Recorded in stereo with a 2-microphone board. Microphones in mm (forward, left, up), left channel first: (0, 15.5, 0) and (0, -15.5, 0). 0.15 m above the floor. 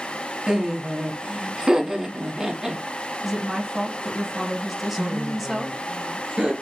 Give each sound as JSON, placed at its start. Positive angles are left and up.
{"t": 0.5, "sound": "laughter", "side_deg": -20, "distance_m": 1.1}
{"t": 3.2, "sound": "a woman speaking", "side_deg": 0, "distance_m": 1.5}
{"t": 5.0, "sound": "laughter", "side_deg": -20, "distance_m": 2.5}